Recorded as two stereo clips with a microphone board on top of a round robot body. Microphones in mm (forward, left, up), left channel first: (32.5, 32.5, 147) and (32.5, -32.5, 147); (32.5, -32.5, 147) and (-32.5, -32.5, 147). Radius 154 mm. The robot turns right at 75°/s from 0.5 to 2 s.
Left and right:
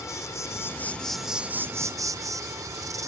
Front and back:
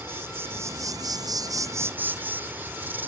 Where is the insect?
130° left; by 3.1 s 120° right.